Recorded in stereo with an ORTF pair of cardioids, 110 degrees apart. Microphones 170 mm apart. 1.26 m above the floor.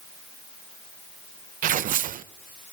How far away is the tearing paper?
About 0.9 m.